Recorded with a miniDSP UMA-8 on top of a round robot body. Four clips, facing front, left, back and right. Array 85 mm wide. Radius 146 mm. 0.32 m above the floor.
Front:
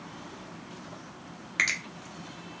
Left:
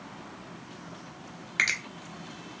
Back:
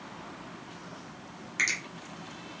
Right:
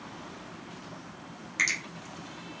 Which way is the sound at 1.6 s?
55° left.